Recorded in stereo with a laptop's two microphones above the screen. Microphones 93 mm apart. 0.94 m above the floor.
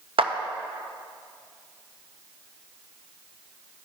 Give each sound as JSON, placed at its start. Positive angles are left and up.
{"t": 0.2, "sound": "a clap", "side_deg": -70, "distance_m": 0.6}